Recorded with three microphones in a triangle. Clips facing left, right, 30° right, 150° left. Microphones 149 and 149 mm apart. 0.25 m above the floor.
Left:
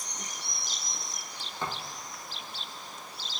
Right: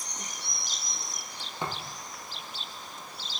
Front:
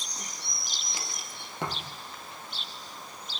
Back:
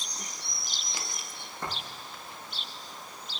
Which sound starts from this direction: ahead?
A thud, at 1.6 s.